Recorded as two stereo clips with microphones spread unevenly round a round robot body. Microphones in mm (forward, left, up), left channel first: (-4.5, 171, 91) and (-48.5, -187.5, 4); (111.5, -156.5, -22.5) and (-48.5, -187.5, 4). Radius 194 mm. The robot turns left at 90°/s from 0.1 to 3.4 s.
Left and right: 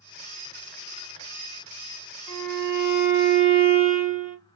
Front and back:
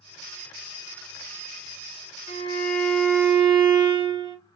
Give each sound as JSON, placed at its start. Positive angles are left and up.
{"t": 2.3, "sound": "a violin", "azimuth_deg": -5, "distance_m": 1.6}